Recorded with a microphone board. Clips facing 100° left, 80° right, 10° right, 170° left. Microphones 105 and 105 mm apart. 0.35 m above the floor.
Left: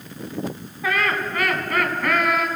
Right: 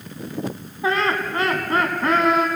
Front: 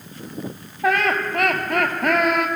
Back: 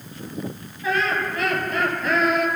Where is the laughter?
20° right, 2.5 m.